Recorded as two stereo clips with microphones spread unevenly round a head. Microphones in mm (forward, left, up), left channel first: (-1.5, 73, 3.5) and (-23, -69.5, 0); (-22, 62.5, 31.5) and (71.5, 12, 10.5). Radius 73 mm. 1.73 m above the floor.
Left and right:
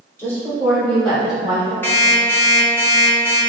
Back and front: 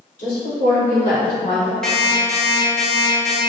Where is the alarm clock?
115° left, 0.8 m.